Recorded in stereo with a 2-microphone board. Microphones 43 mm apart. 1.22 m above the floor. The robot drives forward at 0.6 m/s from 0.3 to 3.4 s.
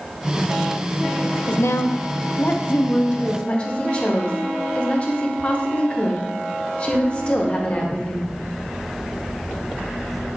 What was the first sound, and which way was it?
A woman speaking, 75° left (ahead or behind).